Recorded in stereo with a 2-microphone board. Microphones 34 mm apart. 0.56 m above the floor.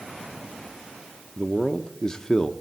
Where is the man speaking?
20° left (ahead or behind), 0.6 m.